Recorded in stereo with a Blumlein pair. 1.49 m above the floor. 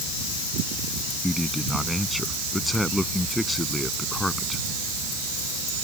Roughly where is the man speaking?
Ahead.